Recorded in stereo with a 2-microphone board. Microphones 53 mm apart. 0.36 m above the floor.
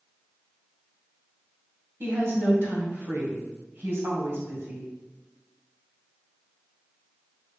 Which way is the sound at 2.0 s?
50° right (ahead or behind).